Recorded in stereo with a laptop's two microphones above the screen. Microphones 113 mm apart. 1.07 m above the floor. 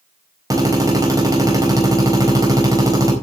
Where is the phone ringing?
I don't hear a phone ringing.